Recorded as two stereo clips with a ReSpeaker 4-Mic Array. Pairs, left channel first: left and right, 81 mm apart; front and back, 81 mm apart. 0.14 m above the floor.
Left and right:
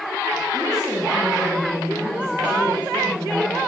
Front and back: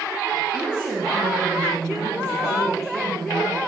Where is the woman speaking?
80° right, 2.5 m; by 3.6 s 10° right, 2.5 m.